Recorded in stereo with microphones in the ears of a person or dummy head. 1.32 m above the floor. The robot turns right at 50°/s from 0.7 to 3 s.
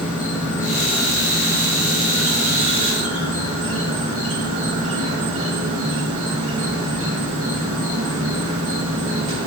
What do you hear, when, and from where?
0.0 s an insect: 135° left, 1.1 m; by 9.5 s 110° right, 1.1 m